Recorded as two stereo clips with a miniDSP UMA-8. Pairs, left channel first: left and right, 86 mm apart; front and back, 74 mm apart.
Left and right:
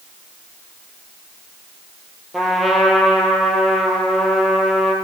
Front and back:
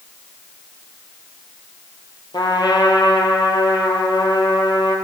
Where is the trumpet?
Straight ahead, 1.4 m.